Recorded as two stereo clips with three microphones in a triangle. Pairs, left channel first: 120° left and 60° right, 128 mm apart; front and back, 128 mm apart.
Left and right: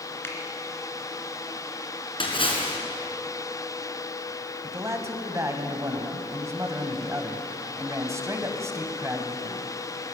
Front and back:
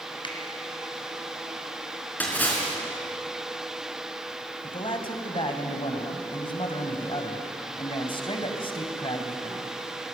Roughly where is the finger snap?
Ahead left.